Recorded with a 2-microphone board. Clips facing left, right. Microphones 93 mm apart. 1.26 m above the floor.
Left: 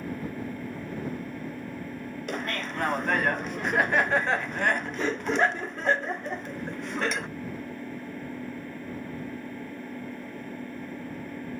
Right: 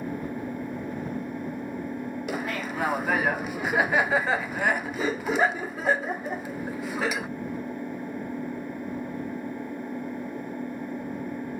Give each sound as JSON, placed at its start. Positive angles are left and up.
{"t": 0.0, "sound": "an engine running", "side_deg": -20}
{"t": 2.3, "sound": "laughter", "side_deg": -5}